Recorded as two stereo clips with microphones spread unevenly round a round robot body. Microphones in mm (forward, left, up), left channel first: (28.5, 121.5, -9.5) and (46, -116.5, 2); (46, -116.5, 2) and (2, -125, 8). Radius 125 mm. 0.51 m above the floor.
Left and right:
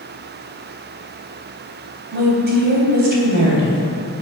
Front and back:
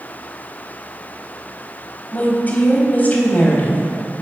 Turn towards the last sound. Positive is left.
turn(degrees=-40)